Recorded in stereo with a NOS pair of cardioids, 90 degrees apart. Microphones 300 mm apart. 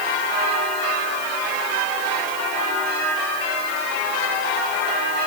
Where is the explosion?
No explosion in this recording.